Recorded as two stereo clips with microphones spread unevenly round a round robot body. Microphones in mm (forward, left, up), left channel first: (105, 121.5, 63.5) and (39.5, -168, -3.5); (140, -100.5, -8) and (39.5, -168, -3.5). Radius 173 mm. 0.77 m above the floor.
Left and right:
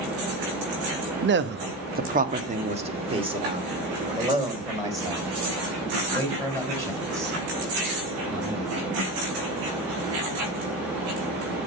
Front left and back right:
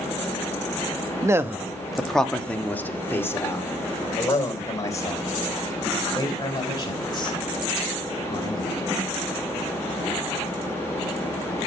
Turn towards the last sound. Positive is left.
turn(degrees=-20)